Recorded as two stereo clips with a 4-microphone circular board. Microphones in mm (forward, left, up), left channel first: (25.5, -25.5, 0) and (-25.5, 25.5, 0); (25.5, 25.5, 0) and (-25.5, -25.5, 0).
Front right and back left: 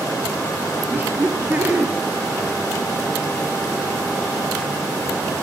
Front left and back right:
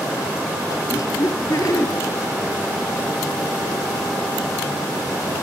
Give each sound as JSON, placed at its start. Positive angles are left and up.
{"t": 0.9, "sound": "laughter", "azimuth_deg": 75, "distance_m": 2.0}